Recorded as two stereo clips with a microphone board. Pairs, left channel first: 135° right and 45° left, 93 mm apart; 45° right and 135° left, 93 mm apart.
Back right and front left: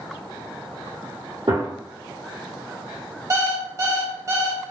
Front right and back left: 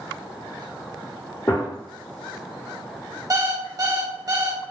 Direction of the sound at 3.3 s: 95° left.